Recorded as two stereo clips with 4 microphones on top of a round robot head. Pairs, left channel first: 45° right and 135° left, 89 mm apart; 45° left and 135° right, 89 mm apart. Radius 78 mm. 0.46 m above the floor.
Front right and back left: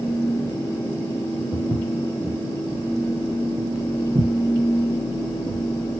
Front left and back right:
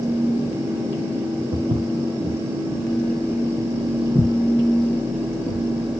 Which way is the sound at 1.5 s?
140° right.